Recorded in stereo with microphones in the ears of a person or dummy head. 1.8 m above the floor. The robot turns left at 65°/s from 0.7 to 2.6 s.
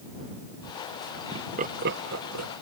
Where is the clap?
I don't hear a clap.